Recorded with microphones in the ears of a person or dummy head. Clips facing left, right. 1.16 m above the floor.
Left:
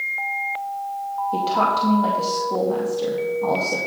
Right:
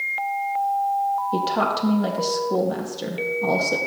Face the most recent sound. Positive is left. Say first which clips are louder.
# left 1 dB
turn(degrees=-15)  # may be behind; listen again after turning